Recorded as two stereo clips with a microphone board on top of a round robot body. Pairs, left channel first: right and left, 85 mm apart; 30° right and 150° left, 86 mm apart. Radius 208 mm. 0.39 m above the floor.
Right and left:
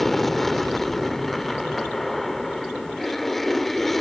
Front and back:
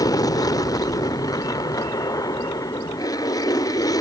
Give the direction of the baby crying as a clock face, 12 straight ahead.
No baby crying in this recording.